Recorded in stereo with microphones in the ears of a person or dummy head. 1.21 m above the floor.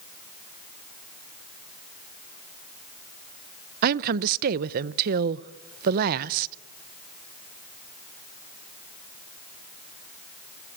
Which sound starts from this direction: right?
A woman speaking, at 3.8 s.